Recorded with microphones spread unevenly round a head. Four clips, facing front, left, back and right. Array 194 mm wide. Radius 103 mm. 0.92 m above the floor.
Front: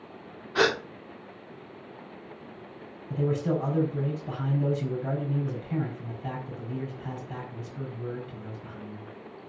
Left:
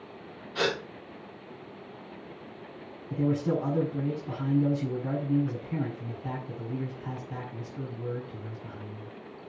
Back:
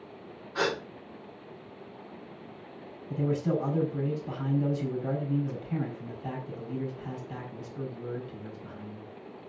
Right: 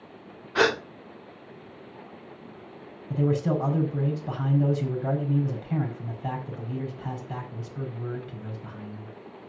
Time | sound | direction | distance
0.6 | a gasp | 45° right | 1.4 m
3.1 | a man speaking | 70° right | 4.5 m